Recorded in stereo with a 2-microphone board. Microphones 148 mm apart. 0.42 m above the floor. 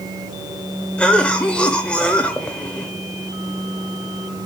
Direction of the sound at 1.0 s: 10° left (ahead or behind).